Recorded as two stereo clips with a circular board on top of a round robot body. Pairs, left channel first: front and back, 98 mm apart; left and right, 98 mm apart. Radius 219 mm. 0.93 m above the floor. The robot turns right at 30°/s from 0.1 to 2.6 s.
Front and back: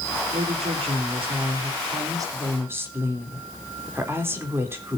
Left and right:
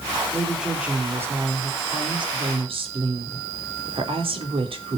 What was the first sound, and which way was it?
A woman speaking, straight behind.